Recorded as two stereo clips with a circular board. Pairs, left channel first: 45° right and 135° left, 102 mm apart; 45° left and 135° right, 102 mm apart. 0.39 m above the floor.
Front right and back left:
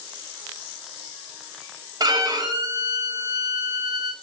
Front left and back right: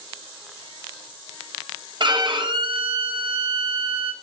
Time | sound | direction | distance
2.0 | a violin | 175° right | 0.5 m